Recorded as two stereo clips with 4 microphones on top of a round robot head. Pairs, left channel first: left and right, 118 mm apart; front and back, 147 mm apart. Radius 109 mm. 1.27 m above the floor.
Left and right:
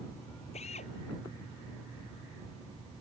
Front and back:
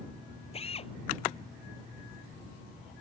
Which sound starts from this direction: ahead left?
A drill, at 0.5 s.